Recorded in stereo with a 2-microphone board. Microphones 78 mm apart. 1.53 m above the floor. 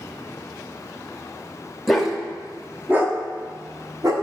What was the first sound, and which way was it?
A dog barking, centre (ahead or behind).